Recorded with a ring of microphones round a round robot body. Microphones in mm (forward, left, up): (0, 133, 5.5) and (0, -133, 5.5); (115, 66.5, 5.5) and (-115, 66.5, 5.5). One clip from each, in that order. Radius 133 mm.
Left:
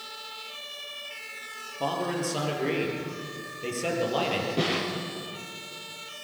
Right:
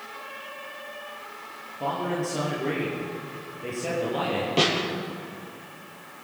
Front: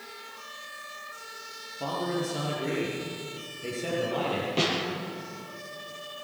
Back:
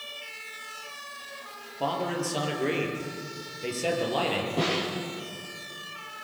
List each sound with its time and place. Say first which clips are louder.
1.8 s a man speaking: right 1 dB, back 2 dB; 145° left, 7 m
4.6 s a snare drum: right 7 dB, front 2 dB; 50° right, 7 m